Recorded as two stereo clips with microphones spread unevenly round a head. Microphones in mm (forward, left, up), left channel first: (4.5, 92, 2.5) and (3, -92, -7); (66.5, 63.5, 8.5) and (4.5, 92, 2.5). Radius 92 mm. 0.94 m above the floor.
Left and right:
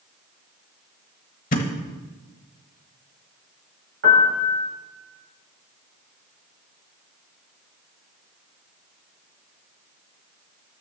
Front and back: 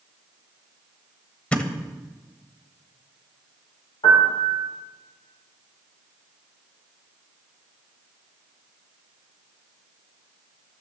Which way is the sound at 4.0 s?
55° right.